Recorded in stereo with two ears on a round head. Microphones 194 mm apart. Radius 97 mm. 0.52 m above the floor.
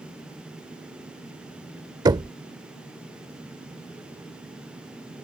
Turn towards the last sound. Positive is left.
turn(degrees=-20)  # may be behind; listen again after turning